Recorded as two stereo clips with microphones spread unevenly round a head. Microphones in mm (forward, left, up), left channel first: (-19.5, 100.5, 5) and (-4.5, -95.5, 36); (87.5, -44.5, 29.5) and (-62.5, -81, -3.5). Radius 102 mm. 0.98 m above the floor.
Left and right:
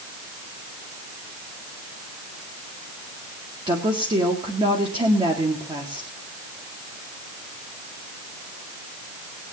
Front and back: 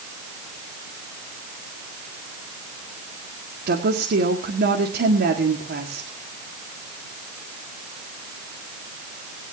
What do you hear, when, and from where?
3.7 s a woman speaking: 155° right, 1.9 m